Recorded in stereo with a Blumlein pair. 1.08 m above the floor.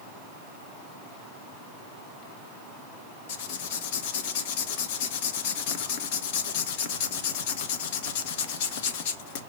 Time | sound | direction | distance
3.3 | writing | 50° left | 1.3 m